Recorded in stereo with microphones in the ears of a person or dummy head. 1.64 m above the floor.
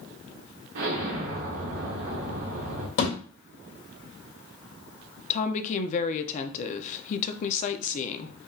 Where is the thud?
55° left (ahead or behind), 2 m.